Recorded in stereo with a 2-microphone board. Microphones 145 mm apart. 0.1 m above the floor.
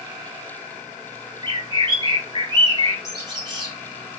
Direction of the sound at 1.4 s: 30° right (ahead or behind).